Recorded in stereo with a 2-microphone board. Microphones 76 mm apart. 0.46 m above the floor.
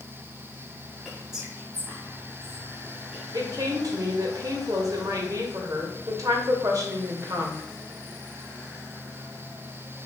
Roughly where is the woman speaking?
Right.